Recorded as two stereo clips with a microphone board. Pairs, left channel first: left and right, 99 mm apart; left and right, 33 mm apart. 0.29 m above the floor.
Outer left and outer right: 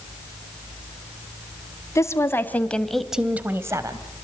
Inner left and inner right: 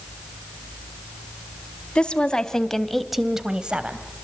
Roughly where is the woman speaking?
Left.